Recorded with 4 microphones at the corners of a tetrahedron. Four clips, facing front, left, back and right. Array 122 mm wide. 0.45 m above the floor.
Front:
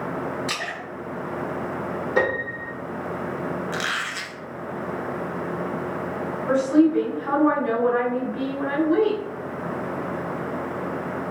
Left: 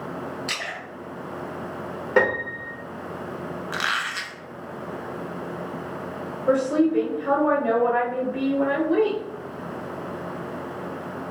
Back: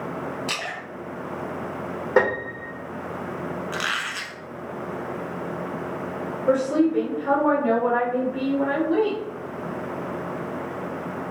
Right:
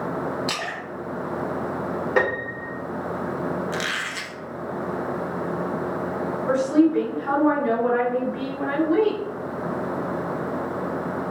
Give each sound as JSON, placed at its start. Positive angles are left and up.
{"t": 0.5, "sound": "a splash", "azimuth_deg": -125, "distance_m": 1.9}
{"t": 2.2, "sound": "a piano", "azimuth_deg": 175, "distance_m": 1.2}
{"t": 3.7, "sound": "a squeak", "azimuth_deg": 110, "distance_m": 0.7}
{"t": 6.5, "sound": "a woman speaking", "azimuth_deg": 140, "distance_m": 1.8}